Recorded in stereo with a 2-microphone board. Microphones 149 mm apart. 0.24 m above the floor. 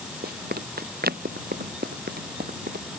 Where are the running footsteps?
85° right; by 2.9 s 90° right.